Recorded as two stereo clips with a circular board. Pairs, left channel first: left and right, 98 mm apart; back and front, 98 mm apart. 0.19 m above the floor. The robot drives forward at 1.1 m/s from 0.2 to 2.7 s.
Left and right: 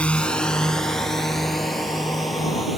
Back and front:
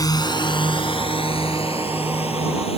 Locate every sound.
0.0 s a drone: 160° left; by 2.8 s straight behind